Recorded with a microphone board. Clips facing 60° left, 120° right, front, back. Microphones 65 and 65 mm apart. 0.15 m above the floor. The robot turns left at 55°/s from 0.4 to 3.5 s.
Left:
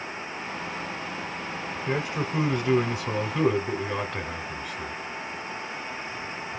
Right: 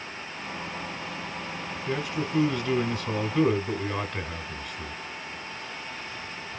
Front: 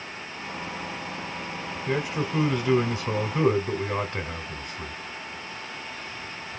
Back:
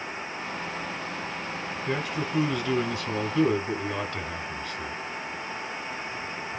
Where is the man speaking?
65° left, 1.0 m; by 5.0 s 25° right, 1.0 m.